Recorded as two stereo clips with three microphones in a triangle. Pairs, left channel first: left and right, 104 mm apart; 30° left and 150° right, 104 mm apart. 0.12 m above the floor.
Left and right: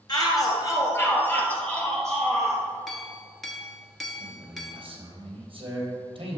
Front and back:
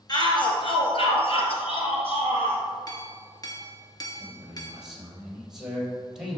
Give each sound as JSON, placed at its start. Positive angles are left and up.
{"t": 0.1, "sound": "a shout", "azimuth_deg": 60, "distance_m": 1.8}
{"t": 2.9, "sound": "a clink", "azimuth_deg": 0, "distance_m": 1.1}
{"t": 4.2, "sound": "a man speaking", "azimuth_deg": -65, "distance_m": 3.0}